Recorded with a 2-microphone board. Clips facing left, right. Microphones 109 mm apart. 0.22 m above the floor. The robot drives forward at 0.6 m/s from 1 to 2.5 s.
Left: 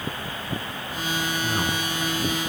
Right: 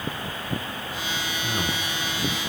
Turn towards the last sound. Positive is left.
turn(degrees=25)  # may be behind; listen again after turning